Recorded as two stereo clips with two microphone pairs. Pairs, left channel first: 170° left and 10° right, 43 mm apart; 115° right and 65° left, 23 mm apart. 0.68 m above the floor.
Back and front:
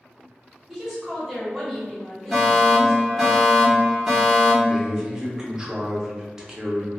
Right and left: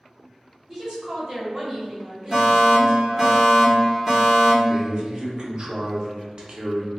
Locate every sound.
0.7 s a woman speaking: 75° left, 1.0 m
2.3 s a fire alarm: 65° left, 1.5 m
4.7 s a man speaking: 55° left, 0.6 m